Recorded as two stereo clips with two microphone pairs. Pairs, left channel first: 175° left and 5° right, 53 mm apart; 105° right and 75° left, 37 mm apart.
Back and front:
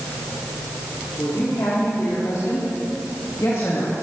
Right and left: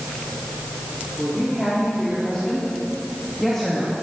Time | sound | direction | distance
1.2 | a woman speaking | 175° right | 3.5 m